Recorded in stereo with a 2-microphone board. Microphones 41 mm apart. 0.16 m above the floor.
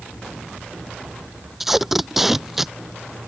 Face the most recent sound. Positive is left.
turn(degrees=-5)  # may be behind; listen again after turning